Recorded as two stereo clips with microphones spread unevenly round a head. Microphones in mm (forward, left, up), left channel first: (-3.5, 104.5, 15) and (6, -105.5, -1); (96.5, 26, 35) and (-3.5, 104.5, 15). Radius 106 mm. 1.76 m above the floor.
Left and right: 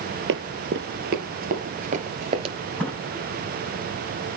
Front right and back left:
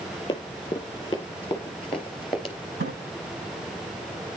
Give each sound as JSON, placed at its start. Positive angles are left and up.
{"t": 0.3, "sound": "running footsteps", "azimuth_deg": -85, "distance_m": 2.5}
{"t": 2.8, "sound": "a splash", "azimuth_deg": 175, "distance_m": 8.5}